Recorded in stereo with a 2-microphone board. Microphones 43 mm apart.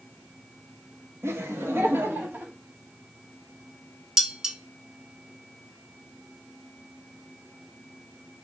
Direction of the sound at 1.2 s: 85° right.